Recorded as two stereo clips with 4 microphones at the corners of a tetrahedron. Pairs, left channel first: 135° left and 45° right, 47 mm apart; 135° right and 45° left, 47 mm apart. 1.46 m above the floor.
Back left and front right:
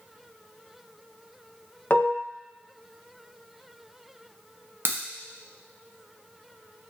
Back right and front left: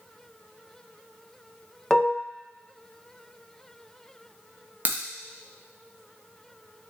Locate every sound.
1.9 s dishes clattering: 150° left, 0.6 m
4.8 s a crack: 10° right, 0.9 m